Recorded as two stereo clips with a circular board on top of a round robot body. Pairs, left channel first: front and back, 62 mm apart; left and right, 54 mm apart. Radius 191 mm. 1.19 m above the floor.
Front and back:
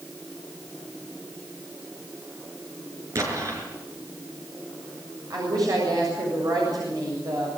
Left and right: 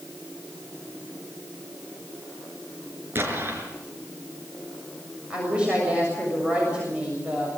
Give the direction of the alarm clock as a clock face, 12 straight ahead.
I don't hear an alarm clock.